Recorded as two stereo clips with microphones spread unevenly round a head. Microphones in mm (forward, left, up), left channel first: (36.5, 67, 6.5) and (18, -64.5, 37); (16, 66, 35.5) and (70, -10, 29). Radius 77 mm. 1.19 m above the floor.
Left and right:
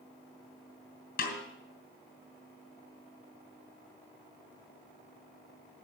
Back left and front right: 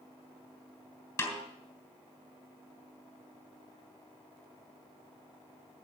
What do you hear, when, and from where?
1.2 s a snare drum: 70° left, 3 m